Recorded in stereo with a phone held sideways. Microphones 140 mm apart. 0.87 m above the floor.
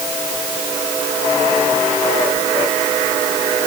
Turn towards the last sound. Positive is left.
No sound to turn to.